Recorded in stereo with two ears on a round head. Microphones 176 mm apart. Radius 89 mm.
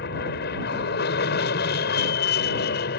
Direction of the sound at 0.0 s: 50° left (ahead or behind).